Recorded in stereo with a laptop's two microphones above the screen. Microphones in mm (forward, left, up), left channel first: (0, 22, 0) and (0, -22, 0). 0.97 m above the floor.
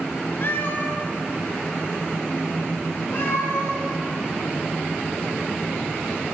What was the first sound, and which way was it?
A cat meowing, 50° left (ahead or behind).